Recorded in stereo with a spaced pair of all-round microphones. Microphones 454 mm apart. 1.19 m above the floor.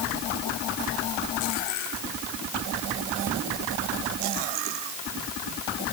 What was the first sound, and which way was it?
Only background noise.